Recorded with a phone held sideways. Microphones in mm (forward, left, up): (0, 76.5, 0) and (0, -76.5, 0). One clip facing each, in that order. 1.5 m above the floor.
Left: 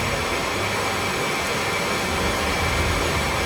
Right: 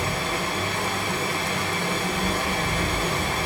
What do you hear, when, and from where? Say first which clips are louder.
0.0 s running water: left 2 dB; 80° left, 6.5 m